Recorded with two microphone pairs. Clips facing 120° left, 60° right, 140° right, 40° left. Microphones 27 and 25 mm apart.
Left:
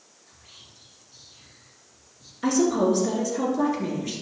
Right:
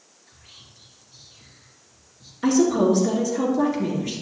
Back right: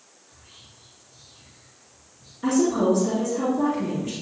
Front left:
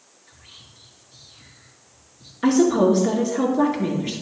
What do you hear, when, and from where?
0.3 s whispering: 15° left, 3 m
2.4 s a woman speaking: 20° left, 3 m